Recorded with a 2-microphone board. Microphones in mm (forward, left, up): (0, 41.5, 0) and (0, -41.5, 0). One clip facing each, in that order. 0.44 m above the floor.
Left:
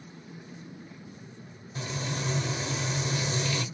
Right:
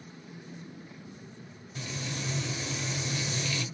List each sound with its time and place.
1.8 s frying: 35° left (ahead or behind), 0.8 m